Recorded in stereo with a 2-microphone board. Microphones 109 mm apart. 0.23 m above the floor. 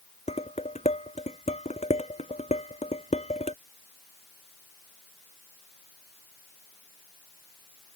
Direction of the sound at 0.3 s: 85° left.